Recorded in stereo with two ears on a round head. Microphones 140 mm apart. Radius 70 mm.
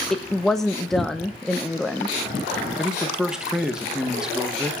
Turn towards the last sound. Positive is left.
turn(degrees=-5)  # may be behind; listen again after turning